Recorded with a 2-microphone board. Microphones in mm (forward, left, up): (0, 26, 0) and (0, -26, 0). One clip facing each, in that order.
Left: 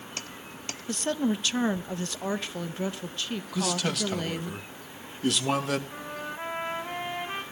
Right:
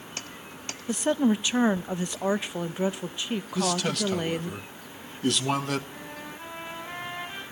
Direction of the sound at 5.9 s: 55° left (ahead or behind).